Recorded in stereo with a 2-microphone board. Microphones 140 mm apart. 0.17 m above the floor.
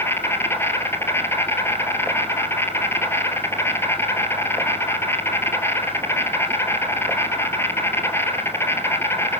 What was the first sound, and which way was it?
An insect, 20° left (ahead or behind).